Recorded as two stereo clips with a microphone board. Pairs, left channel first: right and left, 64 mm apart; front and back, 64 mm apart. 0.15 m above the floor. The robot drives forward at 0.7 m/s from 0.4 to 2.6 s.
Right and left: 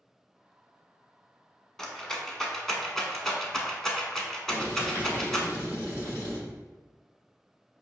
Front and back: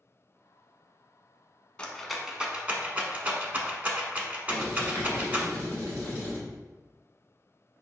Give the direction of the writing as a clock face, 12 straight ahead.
5 o'clock.